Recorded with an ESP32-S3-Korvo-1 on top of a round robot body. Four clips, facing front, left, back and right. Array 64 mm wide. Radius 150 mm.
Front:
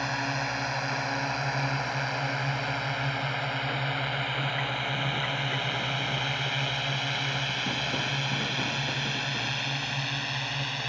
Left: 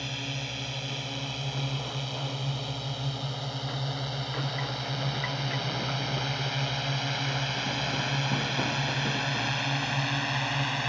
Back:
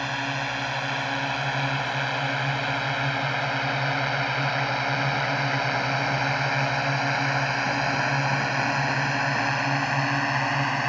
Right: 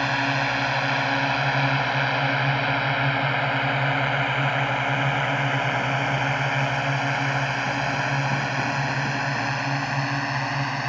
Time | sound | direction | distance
0.0 | a drone | 105° right | ?